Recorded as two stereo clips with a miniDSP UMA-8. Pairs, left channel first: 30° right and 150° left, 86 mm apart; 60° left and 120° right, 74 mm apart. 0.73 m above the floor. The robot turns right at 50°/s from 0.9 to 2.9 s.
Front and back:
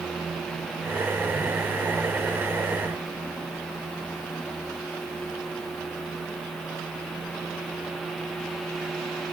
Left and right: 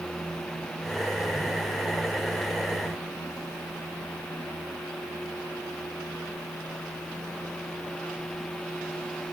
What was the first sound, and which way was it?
Only background noise.